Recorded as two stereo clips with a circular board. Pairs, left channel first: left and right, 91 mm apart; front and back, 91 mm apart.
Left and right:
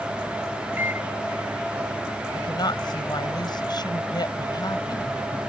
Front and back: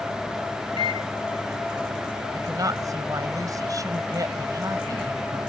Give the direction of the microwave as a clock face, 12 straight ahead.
5 o'clock.